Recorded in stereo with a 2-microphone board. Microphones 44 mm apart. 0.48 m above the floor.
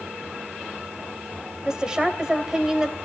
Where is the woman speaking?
15° right (ahead or behind), 2.5 m.